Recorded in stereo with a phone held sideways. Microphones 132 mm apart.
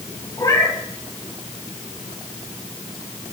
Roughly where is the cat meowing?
Left.